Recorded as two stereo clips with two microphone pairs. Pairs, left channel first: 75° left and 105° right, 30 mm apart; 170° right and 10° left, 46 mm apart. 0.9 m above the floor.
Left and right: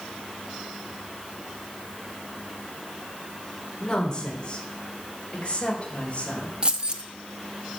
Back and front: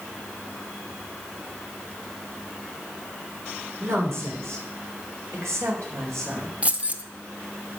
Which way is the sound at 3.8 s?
5° left.